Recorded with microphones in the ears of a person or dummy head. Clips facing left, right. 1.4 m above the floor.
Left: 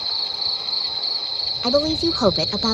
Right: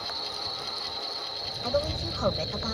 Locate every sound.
0.0 s an insect: 40° left (ahead or behind)
1.6 s a woman speaking: 85° left